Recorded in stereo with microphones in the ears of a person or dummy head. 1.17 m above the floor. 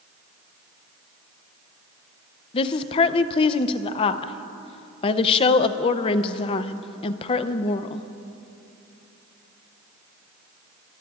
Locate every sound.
2.5 s a woman speaking: 35° left (ahead or behind), 0.6 m